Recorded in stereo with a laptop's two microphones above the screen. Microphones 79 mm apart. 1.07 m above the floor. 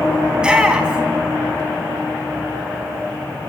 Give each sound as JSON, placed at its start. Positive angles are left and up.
{"t": 0.3, "sound": "a shout", "side_deg": -10, "distance_m": 1.8}